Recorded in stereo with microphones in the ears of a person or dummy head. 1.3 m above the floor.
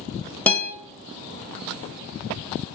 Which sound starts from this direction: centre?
A guitar, at 0.5 s.